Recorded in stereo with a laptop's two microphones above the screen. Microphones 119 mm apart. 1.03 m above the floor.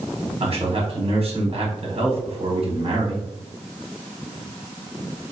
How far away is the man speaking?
About 1.2 m.